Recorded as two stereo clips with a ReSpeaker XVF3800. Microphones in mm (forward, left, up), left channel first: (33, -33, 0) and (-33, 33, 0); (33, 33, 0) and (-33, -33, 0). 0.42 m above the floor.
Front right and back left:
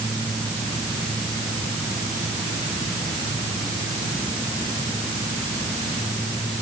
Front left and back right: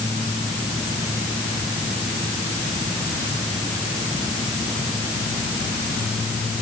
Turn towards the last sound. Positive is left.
No sound to turn to.